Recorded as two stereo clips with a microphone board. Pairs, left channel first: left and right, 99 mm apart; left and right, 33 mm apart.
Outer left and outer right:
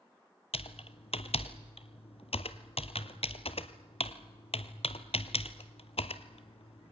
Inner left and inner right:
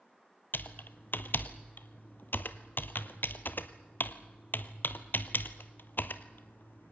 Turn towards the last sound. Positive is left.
turn(degrees=75)  # may be behind; listen again after turning